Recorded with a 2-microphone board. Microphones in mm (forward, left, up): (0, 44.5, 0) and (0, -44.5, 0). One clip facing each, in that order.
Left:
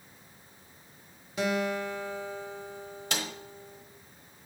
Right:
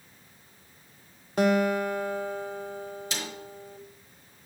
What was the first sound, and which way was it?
A guitar, 50° right (ahead or behind).